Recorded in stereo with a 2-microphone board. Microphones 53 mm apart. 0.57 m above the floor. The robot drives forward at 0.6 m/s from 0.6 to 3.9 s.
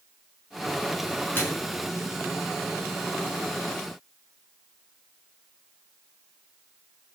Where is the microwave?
35° left (ahead or behind), 5.5 m.